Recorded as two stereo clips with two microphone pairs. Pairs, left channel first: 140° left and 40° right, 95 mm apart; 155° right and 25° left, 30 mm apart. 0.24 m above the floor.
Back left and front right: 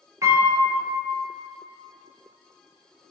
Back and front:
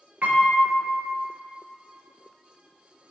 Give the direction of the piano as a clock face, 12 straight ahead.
12 o'clock.